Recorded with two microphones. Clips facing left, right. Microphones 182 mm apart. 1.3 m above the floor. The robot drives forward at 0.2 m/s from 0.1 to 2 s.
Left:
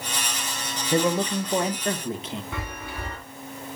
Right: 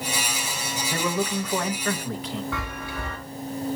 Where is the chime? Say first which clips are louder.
Right 2 dB; 20° left (ahead or behind), 4 m.